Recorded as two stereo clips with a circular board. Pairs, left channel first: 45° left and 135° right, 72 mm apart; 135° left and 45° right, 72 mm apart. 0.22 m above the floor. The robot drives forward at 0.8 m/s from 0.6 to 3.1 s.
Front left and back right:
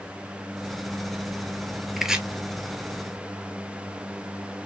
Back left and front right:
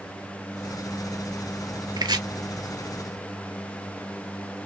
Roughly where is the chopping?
Ahead right.